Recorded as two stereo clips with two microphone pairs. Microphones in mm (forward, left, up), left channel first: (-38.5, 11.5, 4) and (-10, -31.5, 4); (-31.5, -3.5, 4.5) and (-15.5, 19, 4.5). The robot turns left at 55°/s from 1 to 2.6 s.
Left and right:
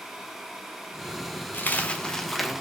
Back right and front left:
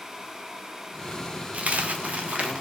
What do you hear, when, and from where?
1.5 s a dropped coin: 80° left, 0.7 m; by 2.6 s 25° left, 0.7 m